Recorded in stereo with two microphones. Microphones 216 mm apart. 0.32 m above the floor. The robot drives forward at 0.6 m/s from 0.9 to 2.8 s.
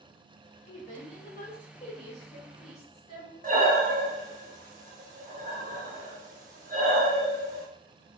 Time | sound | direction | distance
0.7 | a woman speaking | 30° left (ahead or behind) | 1.6 m
3.4 | breathing | 40° right (ahead or behind) | 0.5 m